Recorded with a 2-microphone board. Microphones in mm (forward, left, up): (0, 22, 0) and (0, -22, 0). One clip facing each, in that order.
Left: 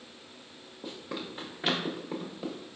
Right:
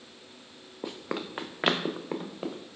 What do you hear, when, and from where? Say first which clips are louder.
0.8 s running footsteps: right 4 dB; 65° right (ahead or behind), 0.6 m; by 2.6 s 40° right (ahead or behind), 1.0 m